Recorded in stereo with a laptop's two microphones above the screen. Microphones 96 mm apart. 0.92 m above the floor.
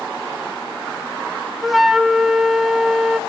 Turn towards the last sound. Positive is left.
turn(degrees=0)  # may be behind; listen again after turning